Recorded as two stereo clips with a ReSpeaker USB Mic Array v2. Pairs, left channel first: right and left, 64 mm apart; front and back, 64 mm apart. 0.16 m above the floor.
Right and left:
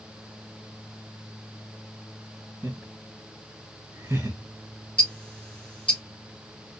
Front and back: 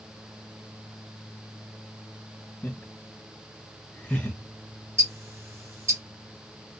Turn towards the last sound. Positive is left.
turn(degrees=-155)